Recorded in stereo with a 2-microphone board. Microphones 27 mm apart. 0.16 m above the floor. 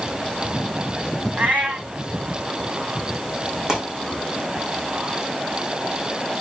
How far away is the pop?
About 5 m.